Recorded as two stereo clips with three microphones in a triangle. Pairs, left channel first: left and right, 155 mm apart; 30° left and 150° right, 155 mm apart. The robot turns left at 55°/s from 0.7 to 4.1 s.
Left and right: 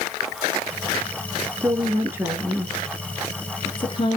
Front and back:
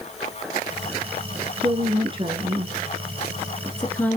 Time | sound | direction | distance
1.6 | a woman speaking | 130° right | 1.4 m